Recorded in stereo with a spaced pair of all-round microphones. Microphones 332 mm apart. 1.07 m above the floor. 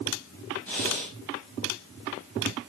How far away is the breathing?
About 5.5 m.